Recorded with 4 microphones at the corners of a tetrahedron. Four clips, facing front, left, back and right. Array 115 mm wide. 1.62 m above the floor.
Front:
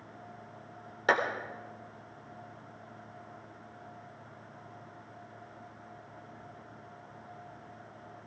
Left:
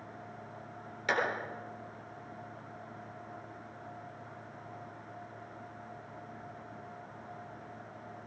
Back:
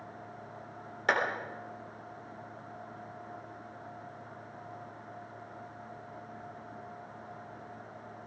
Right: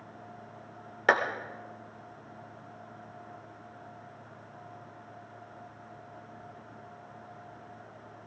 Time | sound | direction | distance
1.1 | a clap | 80° right | 3.5 m